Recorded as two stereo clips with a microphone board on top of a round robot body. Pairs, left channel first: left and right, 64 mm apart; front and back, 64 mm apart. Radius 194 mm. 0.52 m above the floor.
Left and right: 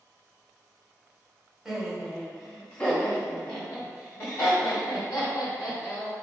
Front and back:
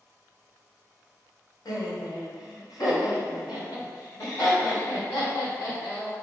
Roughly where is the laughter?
Ahead.